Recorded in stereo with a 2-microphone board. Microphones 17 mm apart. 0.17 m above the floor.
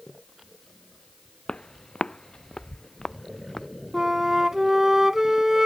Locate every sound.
1.5 s footsteps: 80° left; by 3.7 s 25° left (ahead or behind)
3.9 s a flute: 30° right (ahead or behind)